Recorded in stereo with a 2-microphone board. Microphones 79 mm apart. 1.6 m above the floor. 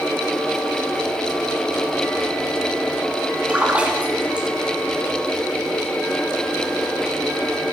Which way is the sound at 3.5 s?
15° right (ahead or behind).